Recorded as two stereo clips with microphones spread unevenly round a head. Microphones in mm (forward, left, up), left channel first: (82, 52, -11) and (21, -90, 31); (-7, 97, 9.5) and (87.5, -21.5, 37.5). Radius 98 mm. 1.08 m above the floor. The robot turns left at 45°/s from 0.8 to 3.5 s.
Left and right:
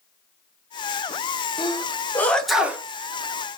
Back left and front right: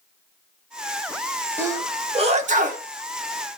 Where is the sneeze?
25° left, 1.1 m; by 2.8 s 30° right, 1.1 m.